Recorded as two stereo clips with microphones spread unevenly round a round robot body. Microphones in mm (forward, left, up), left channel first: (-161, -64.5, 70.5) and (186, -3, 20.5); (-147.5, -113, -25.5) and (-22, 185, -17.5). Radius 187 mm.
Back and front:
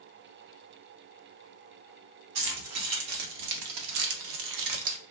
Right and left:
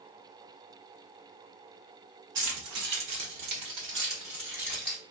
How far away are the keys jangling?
About 1.4 m.